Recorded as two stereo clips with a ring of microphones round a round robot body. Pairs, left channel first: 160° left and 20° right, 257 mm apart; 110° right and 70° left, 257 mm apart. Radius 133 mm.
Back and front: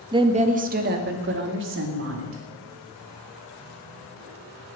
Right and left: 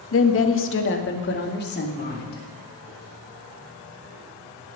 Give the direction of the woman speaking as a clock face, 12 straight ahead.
3 o'clock.